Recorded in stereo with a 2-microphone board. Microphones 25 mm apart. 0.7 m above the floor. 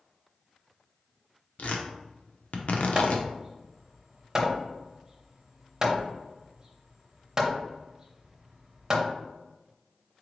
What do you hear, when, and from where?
1.6 s tearing paper: 65° left (ahead or behind), 0.6 m
3.0 s hammering: 20° right (ahead or behind), 0.6 m